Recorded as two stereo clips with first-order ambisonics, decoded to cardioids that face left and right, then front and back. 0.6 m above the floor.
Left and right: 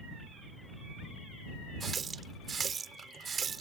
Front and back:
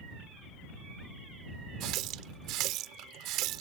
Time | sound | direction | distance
1.8 | a running tap | 155° right | ?